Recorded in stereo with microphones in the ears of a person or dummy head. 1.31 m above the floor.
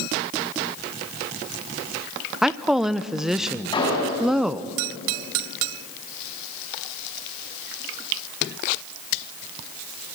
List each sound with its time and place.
2.4 s a woman speaking: centre (ahead or behind), 0.6 m
3.7 s an explosion: 25° left (ahead or behind), 6.5 m